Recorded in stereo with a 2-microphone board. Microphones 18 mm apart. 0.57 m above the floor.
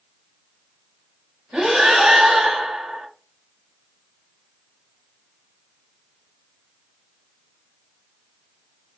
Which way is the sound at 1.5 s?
75° right (ahead or behind).